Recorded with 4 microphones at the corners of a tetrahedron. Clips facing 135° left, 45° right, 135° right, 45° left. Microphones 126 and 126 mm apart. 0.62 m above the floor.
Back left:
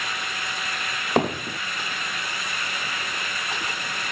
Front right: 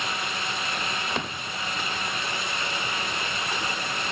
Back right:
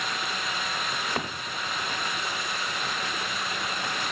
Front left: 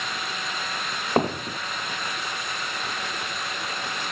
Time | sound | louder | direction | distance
1.2 | hammering | back left 10 dB, front left 9 dB | 90° left | ?